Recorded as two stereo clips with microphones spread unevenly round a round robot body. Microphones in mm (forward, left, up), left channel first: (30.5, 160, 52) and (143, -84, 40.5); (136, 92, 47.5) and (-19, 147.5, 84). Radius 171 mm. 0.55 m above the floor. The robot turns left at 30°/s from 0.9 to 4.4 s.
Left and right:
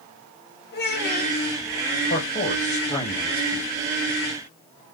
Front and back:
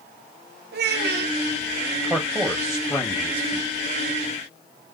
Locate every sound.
0.7 s a child speaking: 165° left, 0.6 m; by 1.4 s 150° left, 0.6 m
2.0 s a man speaking: 75° left, 0.8 m; by 3.7 s 30° left, 0.8 m